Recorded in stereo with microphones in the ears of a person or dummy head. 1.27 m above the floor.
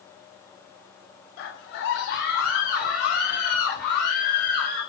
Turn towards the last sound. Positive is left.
turn(degrees=45)  # may be behind; listen again after turning